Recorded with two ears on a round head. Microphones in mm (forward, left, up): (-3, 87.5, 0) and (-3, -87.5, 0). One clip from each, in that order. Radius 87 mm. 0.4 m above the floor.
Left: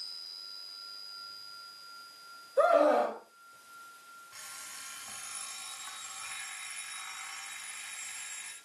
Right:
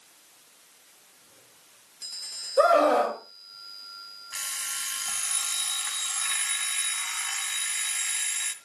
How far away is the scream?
About 2.5 m.